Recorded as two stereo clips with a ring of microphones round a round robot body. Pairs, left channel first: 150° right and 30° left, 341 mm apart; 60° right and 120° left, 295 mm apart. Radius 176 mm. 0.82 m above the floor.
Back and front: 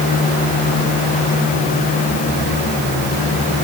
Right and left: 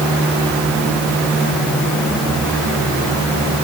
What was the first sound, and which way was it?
Only background noise.